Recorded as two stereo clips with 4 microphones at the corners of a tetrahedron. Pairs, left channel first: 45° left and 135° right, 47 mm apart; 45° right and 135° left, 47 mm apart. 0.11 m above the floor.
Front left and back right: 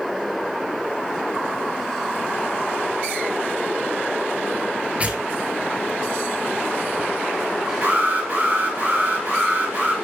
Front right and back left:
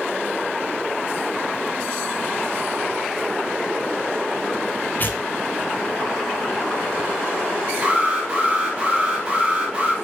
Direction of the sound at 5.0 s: 75° right.